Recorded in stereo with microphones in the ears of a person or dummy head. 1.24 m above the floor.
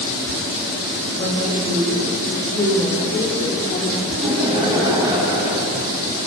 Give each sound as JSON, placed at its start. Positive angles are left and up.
{"t": 1.1, "sound": "a woman speaking", "side_deg": 15, "distance_m": 5.0}
{"t": 4.1, "sound": "laughter", "side_deg": -20, "distance_m": 8.0}